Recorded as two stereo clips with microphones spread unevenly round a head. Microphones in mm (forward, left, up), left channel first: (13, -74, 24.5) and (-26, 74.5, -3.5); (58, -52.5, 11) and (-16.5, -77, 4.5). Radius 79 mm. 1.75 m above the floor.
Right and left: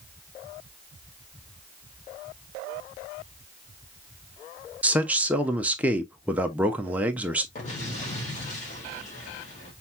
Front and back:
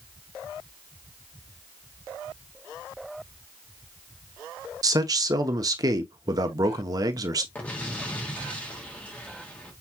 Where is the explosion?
50° right, 1.8 m.